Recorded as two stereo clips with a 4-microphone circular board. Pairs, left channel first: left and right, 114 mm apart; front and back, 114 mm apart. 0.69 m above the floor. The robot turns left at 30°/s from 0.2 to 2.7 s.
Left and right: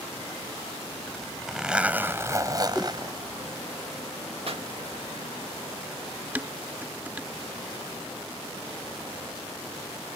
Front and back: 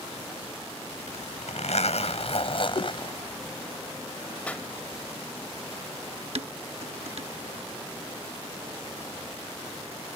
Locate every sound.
1.1 s a zipper: 10° left; by 3.6 s 40° right
2.8 s a whoosh: straight ahead
4.5 s a pop: 75° right
6.3 s dishes clattering: 165° right